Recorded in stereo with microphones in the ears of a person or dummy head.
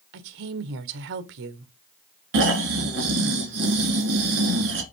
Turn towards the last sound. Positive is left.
turn(degrees=-65)  # may be behind; listen again after turning